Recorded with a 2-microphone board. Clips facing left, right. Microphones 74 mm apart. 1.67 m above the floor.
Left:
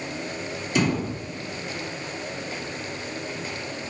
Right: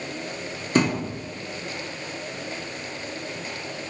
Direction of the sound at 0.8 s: 45° right (ahead or behind).